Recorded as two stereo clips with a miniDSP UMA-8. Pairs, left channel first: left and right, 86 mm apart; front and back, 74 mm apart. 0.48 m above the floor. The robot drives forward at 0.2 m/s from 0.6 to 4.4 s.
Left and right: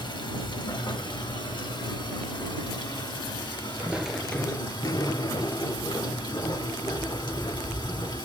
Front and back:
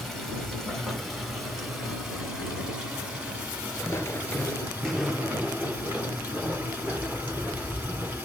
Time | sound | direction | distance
0.0 | running water | 85° left | 1.7 m
3.8 | footsteps | 25° right | 0.6 m